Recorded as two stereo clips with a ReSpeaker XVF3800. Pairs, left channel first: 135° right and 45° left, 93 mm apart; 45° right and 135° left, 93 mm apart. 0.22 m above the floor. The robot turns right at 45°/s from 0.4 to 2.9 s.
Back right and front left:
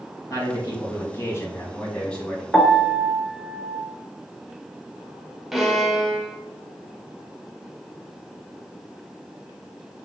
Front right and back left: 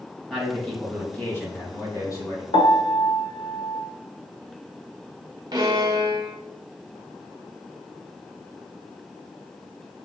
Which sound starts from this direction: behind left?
A violin, at 5.5 s.